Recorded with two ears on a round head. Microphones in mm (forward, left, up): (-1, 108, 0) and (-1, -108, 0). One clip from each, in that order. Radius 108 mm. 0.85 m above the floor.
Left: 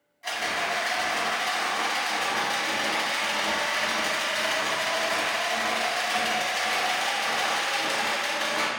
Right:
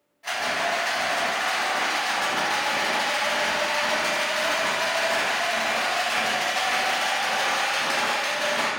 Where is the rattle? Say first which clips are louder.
Right 2 dB; 25° left (ahead or behind), 1.0 m.